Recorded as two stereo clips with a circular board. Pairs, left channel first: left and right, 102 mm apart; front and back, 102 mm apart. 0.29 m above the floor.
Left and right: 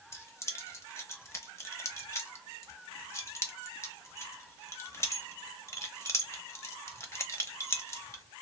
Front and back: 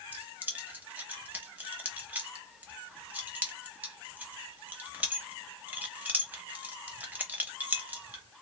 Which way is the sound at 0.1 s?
125° left.